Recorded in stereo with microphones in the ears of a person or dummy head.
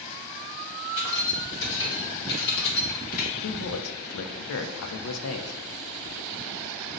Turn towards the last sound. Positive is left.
turn(degrees=75)  # may be behind; listen again after turning